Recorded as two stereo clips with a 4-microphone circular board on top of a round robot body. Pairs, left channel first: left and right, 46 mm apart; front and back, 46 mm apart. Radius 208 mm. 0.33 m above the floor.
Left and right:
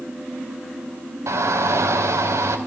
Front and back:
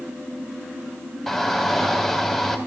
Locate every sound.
1.3 s a shout: 90° right, 3 m